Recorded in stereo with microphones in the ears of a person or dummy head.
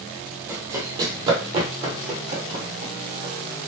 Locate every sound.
0.5 s running footsteps: 15° right (ahead or behind), 1.7 m; by 3.3 s 55° right (ahead or behind), 2.5 m